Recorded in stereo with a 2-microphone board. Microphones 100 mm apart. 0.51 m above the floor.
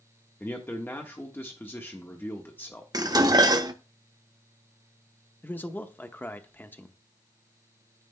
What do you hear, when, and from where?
0.4 s a man speaking: 20° left (ahead or behind), 1.2 m
2.9 s dishes clattering: 40° right (ahead or behind), 0.7 m
5.4 s a man speaking: 20° left (ahead or behind), 0.8 m